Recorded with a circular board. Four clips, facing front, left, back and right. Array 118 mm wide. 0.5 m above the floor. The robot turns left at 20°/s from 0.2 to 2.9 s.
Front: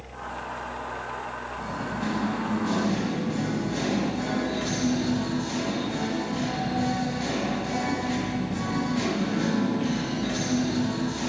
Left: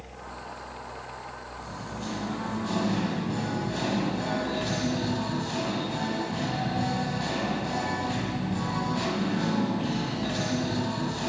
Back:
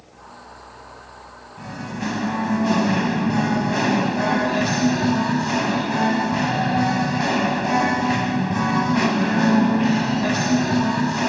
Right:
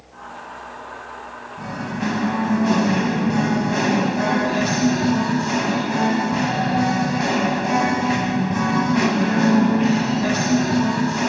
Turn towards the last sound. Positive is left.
turn(degrees=-140)